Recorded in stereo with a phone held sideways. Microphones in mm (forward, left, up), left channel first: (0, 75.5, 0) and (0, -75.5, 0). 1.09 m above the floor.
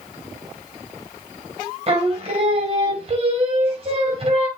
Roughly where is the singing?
Right.